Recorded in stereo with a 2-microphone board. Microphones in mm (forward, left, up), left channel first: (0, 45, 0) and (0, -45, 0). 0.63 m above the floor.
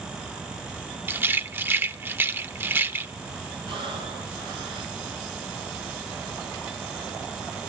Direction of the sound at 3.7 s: 65° right (ahead or behind).